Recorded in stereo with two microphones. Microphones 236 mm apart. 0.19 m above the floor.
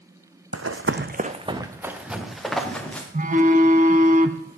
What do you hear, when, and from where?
0.5 s running footsteps: 85° right, 0.8 m; by 3.0 s 5° left (ahead or behind), 3 m
3.1 s a phone buzzing: 35° right (ahead or behind), 0.8 m